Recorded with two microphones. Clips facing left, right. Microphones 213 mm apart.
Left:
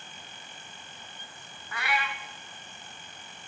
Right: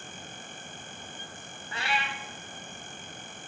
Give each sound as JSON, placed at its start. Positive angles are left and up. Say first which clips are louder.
{"t": 1.7, "sound": "a cat meowing", "louder": "left 1 dB", "side_deg": -30, "distance_m": 0.6}